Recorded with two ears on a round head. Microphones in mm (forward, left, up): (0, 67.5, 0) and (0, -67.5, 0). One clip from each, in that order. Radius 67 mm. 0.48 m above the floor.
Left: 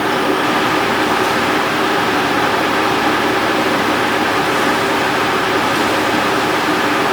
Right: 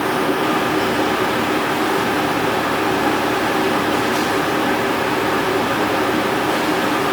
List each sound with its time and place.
Only background noise.